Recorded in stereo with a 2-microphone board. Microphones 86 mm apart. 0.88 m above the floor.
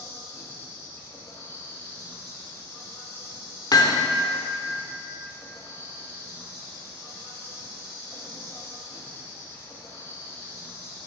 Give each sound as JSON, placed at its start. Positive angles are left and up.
{"t": 0.0, "sound": "an insect", "side_deg": 25, "distance_m": 1.9}
{"t": 3.7, "sound": "hammering", "side_deg": 50, "distance_m": 0.7}